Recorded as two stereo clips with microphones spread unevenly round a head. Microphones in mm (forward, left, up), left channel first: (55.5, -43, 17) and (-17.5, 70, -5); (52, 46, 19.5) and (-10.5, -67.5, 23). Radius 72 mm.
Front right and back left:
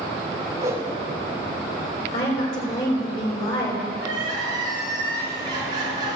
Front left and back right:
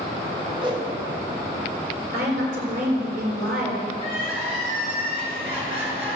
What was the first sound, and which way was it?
A whoosh, 175° right.